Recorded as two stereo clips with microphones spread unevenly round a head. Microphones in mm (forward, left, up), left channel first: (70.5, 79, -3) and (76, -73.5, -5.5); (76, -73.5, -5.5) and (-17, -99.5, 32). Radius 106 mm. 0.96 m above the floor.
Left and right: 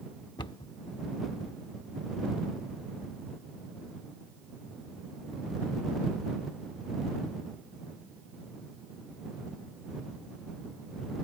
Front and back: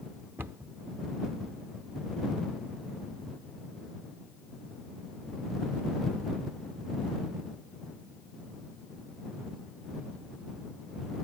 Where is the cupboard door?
150° left.